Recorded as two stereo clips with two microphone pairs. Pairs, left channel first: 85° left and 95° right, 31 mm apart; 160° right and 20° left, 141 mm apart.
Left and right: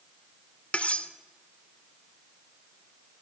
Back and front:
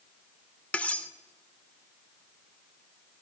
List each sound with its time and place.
0.7 s cutlery clinking: 115° left, 0.5 m